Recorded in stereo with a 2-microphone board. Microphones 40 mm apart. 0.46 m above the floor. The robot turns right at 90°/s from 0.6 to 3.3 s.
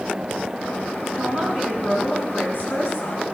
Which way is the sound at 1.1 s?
55° right.